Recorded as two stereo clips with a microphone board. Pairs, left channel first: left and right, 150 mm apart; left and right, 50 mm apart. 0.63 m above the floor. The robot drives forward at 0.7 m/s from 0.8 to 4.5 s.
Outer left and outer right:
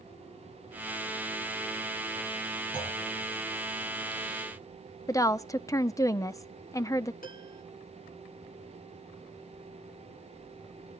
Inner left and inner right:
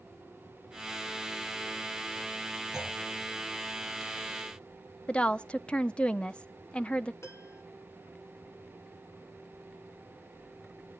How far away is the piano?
About 2.5 m.